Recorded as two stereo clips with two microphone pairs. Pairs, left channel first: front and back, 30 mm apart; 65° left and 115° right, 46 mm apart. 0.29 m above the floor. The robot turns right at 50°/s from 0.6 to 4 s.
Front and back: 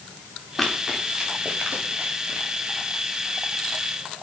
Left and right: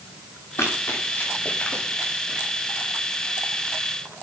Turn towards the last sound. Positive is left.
turn(degrees=-110)